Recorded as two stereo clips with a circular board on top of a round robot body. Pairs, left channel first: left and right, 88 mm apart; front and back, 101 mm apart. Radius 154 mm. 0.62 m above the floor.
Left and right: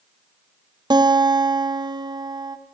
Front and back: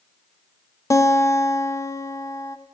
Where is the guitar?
60° right, 1.7 m.